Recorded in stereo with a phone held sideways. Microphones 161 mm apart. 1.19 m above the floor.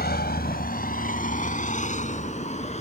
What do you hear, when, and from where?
0.0 s a vehicle: 80° left; by 2.8 s 45° left (ahead or behind)